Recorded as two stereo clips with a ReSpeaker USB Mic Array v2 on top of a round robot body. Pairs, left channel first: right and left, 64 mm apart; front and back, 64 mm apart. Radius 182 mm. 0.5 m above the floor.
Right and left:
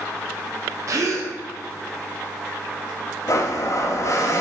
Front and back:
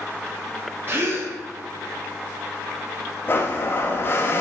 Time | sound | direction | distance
0.9 | a gasp | 130° left | 0.9 m
3.3 | a blender | 55° right | 0.6 m